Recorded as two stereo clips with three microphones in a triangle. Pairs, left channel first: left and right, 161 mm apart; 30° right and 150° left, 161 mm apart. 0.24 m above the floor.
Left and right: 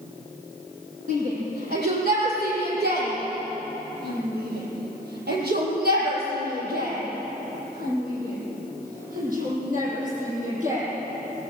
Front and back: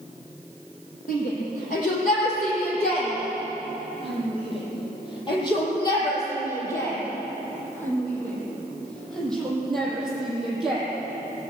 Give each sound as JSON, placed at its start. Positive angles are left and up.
{"t": 1.1, "sound": "a shout", "azimuth_deg": -65, "distance_m": 8.5}